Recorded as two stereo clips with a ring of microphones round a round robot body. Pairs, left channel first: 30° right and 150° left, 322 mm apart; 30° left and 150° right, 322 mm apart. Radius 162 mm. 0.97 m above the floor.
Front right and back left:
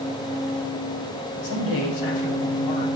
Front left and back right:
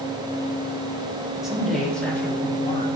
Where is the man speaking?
60° right, 2.5 m; by 2.9 s 45° right, 1.6 m.